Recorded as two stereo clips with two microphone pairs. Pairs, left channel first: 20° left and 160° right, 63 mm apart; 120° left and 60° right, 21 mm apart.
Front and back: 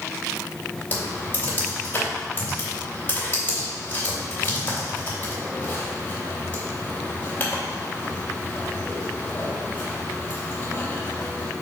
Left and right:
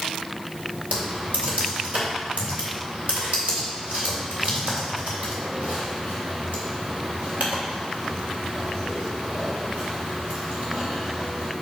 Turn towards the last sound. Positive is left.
turn(degrees=-45)